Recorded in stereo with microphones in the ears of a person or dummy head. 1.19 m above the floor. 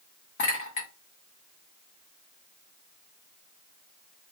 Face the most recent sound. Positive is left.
turn(degrees=35)  # may be behind; listen again after turning